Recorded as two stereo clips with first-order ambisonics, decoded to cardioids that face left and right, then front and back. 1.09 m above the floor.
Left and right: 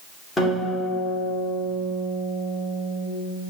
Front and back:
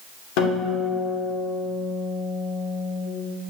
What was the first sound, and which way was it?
A guitar, 15° left.